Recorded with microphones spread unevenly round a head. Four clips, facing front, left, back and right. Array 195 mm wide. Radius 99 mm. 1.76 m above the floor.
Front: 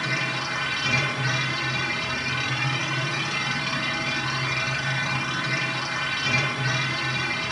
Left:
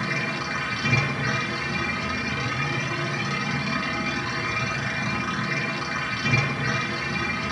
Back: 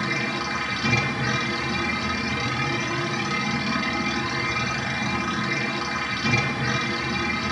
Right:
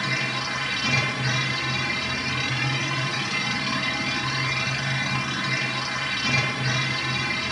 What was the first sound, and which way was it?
A machine running, 170° left.